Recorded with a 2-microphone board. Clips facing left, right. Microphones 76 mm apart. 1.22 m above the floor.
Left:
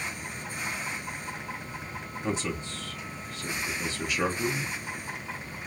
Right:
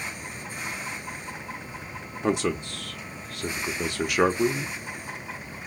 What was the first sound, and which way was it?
A man speaking, 65° right (ahead or behind).